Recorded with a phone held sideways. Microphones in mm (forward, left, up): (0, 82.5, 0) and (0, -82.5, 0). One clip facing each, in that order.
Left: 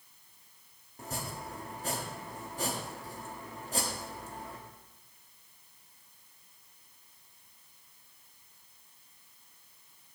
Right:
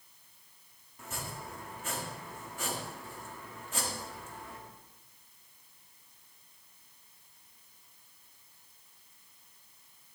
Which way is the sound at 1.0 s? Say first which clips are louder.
Left 3 dB; 35° left (ahead or behind).